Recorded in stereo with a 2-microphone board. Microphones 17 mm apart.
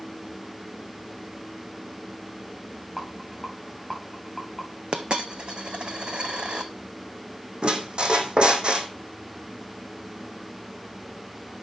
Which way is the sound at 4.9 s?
65° right (ahead or behind).